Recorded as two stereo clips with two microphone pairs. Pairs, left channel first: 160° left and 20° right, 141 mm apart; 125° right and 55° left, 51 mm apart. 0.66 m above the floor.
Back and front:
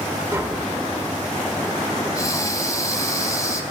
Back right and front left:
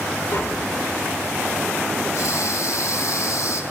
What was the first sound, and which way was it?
Tapping, 90° right.